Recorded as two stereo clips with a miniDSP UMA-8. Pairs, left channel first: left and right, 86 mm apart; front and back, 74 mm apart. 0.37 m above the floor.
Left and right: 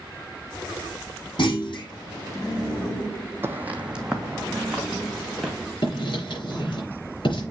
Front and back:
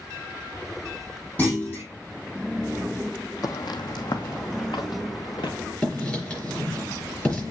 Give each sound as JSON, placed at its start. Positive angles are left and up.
{"t": 1.4, "sound": "a clunk", "azimuth_deg": 65, "distance_m": 5.5}
{"t": 3.4, "sound": "footsteps", "azimuth_deg": -30, "distance_m": 0.9}
{"t": 5.8, "sound": "writing", "azimuth_deg": 75, "distance_m": 5.0}